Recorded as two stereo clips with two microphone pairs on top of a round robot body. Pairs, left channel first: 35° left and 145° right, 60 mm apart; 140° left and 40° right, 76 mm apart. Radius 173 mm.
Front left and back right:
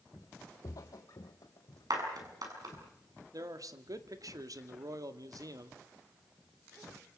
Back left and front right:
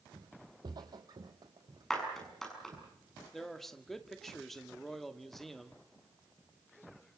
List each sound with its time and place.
0.1 s footsteps: 5° right, 0.8 m; by 2.9 s 5° left, 2.5 m
1.9 s a clap: 130° right, 7 m
3.3 s a man speaking: 130° right, 2 m